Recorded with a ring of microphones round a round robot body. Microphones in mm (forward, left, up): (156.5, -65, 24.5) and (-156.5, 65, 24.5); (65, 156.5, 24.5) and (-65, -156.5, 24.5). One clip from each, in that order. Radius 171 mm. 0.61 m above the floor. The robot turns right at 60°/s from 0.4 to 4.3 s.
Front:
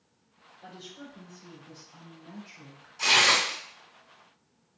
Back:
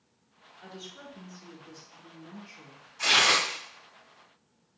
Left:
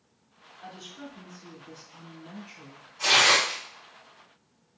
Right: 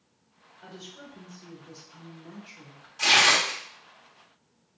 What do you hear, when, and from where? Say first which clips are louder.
0.6 s a woman speaking: back 1 dB, left 2 dB; 150° left, 2.5 m; by 2.9 s 75° right, 2.5 m
3.0 s tearing paper: front 1 dB, even; 100° right, 1.9 m; by 3.6 s 65° right, 1.9 m